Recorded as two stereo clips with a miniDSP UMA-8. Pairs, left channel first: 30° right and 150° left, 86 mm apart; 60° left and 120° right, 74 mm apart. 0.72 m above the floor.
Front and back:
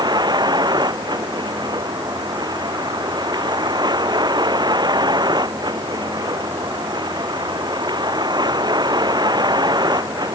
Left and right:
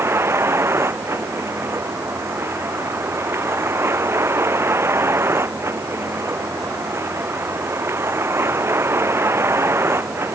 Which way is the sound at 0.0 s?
175° right.